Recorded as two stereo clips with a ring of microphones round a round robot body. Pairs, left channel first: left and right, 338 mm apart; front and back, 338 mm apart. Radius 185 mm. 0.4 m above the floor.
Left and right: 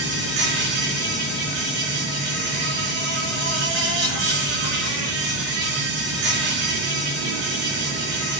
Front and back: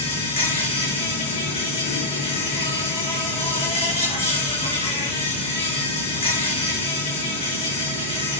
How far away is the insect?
About 4.5 m.